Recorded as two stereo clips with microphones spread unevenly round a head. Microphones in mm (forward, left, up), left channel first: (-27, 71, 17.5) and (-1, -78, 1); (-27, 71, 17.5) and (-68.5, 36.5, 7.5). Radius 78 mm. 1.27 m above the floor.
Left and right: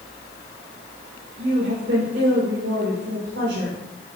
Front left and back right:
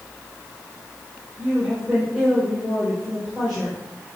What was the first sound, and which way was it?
A woman speaking, 55° right.